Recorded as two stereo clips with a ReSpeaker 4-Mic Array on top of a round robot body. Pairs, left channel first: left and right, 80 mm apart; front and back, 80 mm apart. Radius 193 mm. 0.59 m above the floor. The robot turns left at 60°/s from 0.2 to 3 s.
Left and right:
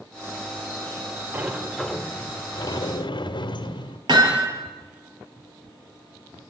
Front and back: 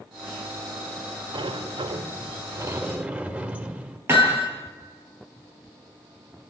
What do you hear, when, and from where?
1.3 s a sliding door: 155° right, 1.8 m; by 4.0 s 105° left, 1.8 m
4.1 s hammering: 120° right, 6 m